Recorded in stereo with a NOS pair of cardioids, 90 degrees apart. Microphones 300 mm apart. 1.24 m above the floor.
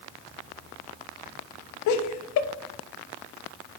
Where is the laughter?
70° left, 0.5 m.